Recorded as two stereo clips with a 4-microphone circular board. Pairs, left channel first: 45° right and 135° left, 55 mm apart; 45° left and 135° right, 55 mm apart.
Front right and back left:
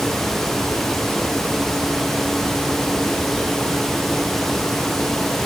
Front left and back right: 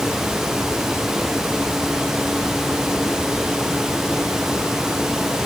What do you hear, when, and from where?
Only background noise.